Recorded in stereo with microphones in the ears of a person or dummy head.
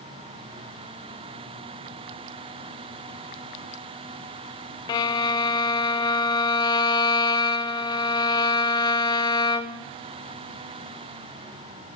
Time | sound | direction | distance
4.9 | a violin | 20° left (ahead or behind) | 0.9 m